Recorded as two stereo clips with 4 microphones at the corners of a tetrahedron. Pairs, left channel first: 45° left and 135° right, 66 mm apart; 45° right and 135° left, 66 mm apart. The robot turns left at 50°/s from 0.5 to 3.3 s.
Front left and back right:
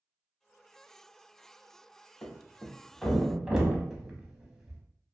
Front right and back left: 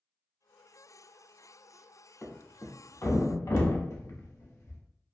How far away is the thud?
About 0.6 m.